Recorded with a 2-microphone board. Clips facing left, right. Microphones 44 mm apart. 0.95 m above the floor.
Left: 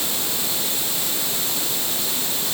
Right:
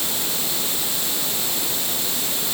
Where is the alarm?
No alarm in this recording.